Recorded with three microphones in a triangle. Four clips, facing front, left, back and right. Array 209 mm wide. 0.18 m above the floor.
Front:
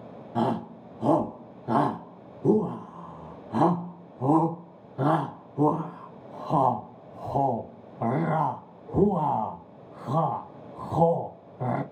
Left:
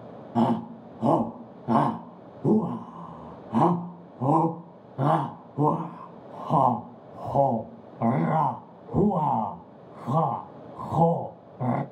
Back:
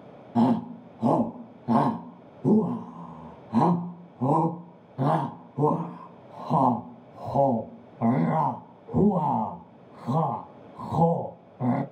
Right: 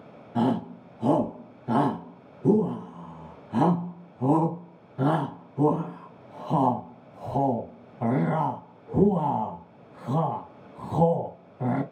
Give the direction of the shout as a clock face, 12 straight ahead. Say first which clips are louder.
Left 1 dB, back 4 dB; 9 o'clock.